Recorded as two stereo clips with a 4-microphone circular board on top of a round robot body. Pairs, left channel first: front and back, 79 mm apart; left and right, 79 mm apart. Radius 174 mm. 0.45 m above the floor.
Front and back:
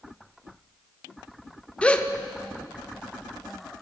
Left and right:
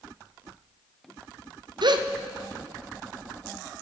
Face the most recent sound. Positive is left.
turn(degrees=-75)